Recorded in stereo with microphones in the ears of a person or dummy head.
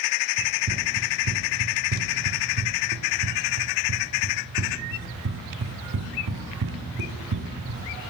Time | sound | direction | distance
0.4 | running footsteps | 40° right (ahead or behind) | 2.5 m